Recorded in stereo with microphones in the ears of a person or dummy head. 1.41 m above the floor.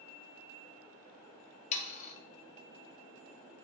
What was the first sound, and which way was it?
Sawing, 45° left (ahead or behind).